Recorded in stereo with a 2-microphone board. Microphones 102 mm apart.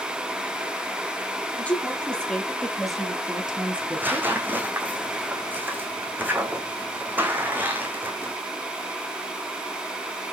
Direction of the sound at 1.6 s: 15° left (ahead or behind).